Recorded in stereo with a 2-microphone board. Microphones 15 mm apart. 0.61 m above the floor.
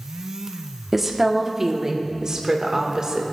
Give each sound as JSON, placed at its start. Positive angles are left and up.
{"t": 0.9, "sound": "a woman speaking", "side_deg": -10, "distance_m": 1.3}